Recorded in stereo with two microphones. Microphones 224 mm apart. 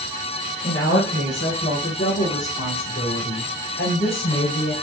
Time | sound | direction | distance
0.6 | a woman speaking | 55° left (ahead or behind) | 4 m